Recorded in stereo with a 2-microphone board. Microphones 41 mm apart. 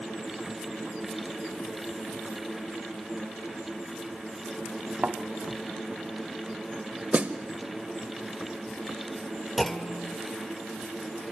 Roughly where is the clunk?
Centre.